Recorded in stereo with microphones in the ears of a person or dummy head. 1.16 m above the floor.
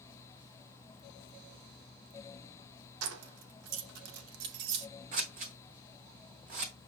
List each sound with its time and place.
3.0 s keys jangling: 80° right, 0.6 m
5.1 s scissors: 40° right (ahead or behind), 1.0 m